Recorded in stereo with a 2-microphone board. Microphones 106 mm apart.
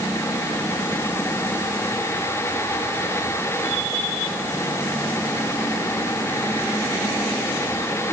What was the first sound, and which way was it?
Only background noise.